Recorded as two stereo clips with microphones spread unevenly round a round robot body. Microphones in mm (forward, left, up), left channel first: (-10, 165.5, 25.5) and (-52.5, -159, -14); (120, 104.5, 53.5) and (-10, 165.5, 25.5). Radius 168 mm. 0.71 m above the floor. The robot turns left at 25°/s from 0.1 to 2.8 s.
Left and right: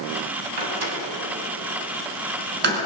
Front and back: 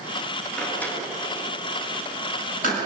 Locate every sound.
0.6 s a door slam: 105° right, 6 m; by 2.8 s 160° right, 6 m